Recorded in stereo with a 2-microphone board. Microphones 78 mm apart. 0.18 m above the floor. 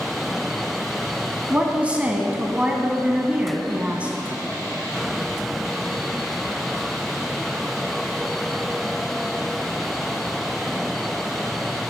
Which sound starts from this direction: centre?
A woman speaking, at 1.5 s.